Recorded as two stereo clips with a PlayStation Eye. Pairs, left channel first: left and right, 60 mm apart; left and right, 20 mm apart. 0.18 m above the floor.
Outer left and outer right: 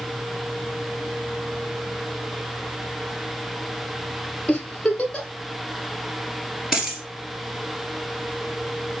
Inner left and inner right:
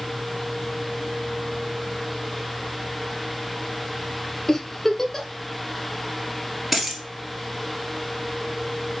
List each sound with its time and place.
4.5 s a giggle: 15° left (ahead or behind), 0.8 m
6.7 s a dropped coin: 10° right (ahead or behind), 1.8 m